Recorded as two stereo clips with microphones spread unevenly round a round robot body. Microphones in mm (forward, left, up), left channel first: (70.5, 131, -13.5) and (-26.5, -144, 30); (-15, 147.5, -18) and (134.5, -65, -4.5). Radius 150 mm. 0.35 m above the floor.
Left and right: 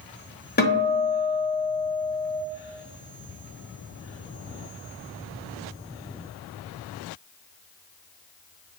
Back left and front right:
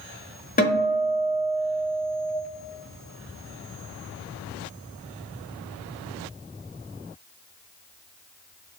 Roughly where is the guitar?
Left.